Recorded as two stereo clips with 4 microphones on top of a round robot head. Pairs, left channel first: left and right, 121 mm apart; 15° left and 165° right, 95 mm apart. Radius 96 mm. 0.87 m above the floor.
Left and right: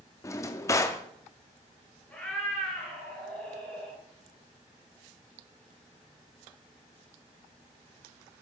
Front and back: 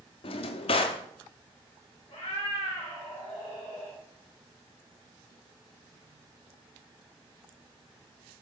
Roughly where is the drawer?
Ahead left.